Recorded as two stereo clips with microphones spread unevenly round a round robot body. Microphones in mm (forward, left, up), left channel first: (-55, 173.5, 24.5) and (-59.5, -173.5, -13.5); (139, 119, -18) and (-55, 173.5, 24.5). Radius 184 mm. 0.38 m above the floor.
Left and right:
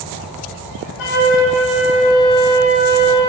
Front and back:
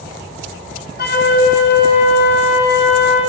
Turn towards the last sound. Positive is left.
turn(degrees=30)